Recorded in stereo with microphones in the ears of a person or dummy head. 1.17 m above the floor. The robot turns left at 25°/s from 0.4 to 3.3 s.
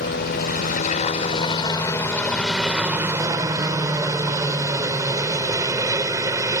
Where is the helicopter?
55° left; by 6.6 s 20° right.